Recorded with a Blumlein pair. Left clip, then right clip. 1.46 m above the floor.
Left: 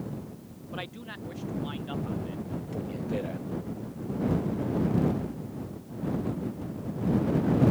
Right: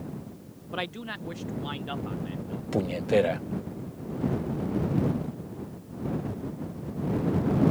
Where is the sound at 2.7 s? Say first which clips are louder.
Right 11 dB; 35° right.